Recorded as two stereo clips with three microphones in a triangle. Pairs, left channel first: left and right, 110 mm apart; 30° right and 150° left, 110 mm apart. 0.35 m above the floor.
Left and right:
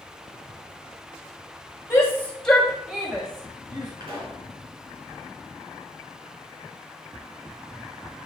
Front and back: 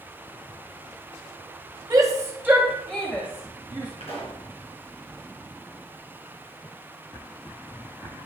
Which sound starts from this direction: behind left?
A shout, at 1.9 s.